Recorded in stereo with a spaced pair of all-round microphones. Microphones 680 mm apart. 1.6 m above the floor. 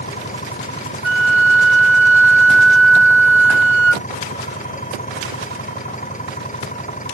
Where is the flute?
20° right (ahead or behind).